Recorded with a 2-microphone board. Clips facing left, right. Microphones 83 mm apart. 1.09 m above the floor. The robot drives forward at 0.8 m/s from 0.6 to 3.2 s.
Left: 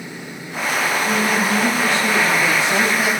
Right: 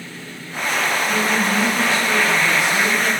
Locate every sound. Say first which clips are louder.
1.1 s a woman speaking: left 1 dB; 60° left (ahead or behind), 2.5 m; by 3.1 s 80° left, 2 m